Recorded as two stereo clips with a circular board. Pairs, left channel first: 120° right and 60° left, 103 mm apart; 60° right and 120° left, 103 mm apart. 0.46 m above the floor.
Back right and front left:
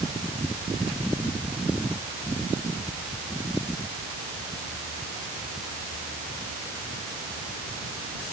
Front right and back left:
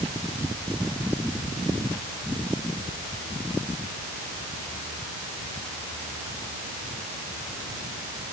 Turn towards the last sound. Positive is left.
No sound to turn to.